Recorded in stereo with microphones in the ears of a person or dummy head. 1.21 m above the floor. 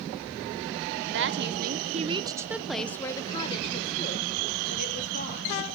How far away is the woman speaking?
About 1.1 m.